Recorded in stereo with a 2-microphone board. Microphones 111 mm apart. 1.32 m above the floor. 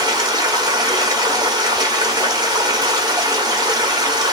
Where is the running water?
35° right (ahead or behind), 1.3 m.